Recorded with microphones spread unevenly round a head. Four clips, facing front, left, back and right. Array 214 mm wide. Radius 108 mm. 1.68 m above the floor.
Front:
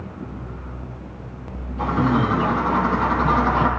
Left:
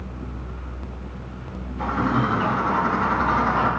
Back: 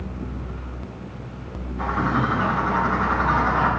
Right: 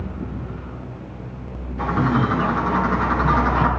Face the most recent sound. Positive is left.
turn(degrees=-60)